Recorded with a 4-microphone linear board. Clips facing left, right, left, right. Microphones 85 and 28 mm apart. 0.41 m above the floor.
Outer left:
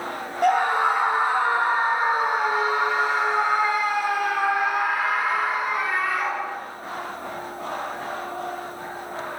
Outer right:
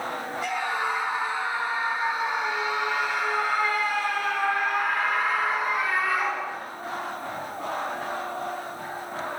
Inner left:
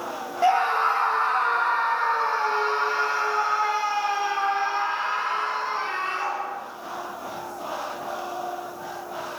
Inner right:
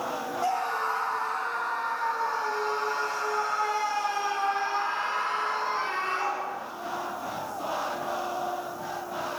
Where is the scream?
55° left (ahead or behind), 2 m; by 6.6 s centre (ahead or behind), 4 m.